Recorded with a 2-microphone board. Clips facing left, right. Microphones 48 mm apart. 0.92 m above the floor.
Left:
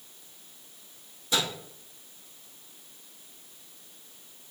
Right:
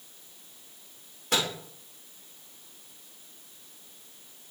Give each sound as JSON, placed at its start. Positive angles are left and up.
{"t": 1.3, "sound": "a microwave", "side_deg": -60, "distance_m": 3.0}